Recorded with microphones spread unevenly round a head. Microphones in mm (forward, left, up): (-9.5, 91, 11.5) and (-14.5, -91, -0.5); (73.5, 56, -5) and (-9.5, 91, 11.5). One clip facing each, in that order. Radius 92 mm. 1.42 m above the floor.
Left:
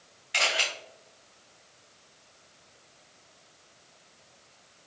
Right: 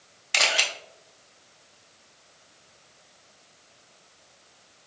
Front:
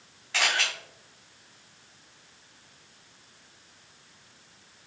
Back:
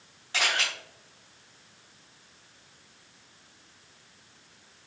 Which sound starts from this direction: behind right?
A camera shutter, at 0.3 s.